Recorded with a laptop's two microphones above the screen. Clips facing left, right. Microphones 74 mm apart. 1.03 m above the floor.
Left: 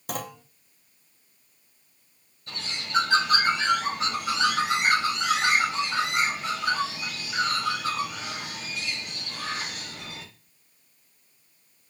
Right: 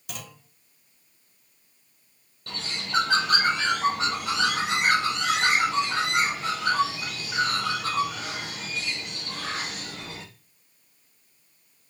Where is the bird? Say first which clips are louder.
Right 3 dB; 80° right, 4.5 m.